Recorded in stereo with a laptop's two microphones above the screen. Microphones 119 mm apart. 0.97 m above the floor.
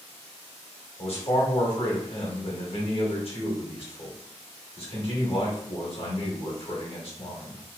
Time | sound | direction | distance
1.0 | a man speaking | 55° left (ahead or behind) | 1.2 m